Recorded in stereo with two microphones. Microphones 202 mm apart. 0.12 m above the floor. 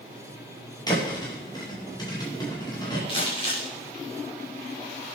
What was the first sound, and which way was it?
A thud, 20° left (ahead or behind).